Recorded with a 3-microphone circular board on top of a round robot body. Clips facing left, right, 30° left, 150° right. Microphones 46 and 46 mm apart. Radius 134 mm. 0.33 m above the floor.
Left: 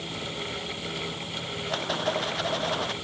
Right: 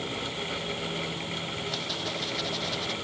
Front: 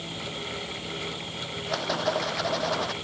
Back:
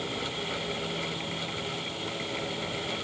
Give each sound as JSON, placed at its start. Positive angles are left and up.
{"t": 1.7, "sound": "a rattle", "azimuth_deg": 30}